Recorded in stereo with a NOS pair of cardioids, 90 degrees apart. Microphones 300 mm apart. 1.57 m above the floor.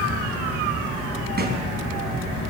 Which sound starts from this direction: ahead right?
A thud, at 1.4 s.